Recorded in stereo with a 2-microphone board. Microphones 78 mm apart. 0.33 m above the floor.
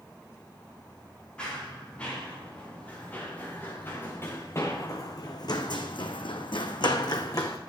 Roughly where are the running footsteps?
Centre.